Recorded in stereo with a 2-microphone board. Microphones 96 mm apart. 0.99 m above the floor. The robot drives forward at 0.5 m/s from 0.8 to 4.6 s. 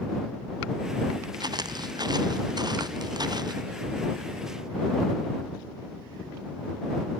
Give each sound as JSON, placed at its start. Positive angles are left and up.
{"t": 1.4, "sound": "footsteps", "side_deg": -45}